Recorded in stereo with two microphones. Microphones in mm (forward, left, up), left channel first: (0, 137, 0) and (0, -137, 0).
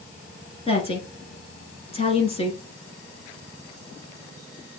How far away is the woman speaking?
About 1.3 m.